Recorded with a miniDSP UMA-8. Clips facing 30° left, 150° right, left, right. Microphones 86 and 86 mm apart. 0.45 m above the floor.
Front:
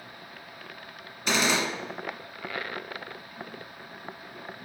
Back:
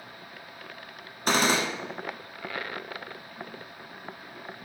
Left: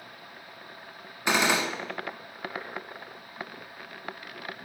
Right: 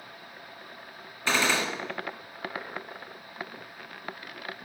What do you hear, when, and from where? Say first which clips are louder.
1.3 s a gunshot: back 2 dB, left 1 dB; 165° left, 0.9 m